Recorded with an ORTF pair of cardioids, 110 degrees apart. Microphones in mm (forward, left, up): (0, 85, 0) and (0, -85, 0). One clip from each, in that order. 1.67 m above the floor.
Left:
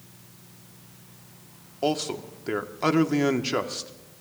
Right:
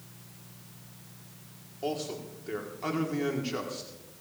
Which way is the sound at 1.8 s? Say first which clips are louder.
Left 7 dB; 50° left.